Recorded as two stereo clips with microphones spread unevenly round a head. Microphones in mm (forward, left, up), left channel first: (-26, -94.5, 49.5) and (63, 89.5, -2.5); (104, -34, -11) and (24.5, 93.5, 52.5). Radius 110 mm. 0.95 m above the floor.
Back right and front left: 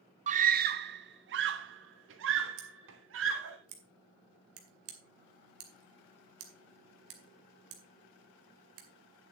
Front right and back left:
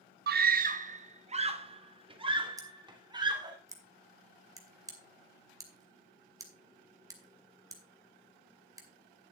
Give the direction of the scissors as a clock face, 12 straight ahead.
10 o'clock.